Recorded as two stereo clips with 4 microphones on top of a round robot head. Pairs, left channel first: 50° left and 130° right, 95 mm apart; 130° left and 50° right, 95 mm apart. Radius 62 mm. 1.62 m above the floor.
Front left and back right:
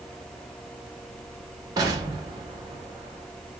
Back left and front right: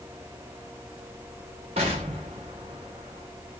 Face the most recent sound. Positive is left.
turn(degrees=-80)